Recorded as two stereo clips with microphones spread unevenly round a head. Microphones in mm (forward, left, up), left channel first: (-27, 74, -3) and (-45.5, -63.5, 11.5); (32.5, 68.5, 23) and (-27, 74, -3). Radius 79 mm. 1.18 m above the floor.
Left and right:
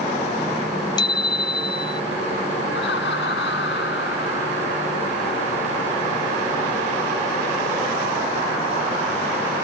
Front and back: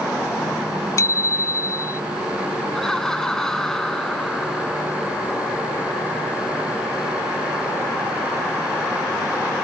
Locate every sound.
1.0 s a bicycle bell: 15° left
2.7 s laughter: 75° left